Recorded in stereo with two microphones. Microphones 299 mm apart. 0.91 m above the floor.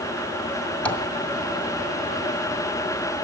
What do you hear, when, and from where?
0.8 s tapping: 5° left (ahead or behind), 1.2 m